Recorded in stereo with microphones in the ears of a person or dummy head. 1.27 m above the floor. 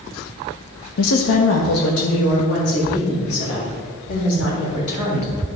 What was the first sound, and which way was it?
A woman speaking, 80° left.